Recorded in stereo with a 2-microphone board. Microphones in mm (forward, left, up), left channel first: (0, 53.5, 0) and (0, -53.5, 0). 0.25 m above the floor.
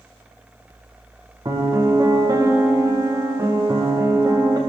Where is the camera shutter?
I don't hear a camera shutter.